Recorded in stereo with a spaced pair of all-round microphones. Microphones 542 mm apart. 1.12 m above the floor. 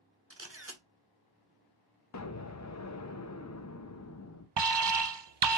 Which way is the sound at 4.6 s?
50° right (ahead or behind).